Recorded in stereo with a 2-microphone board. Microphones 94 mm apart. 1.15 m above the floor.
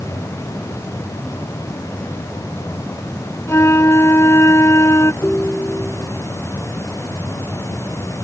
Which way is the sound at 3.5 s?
30° left (ahead or behind).